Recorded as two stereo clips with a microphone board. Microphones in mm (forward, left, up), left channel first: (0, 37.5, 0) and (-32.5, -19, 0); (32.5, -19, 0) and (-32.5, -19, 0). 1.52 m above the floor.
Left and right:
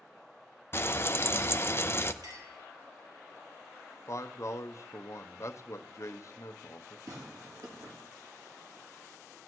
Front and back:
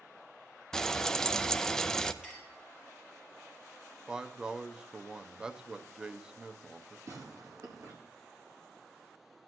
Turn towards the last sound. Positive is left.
turn(degrees=-150)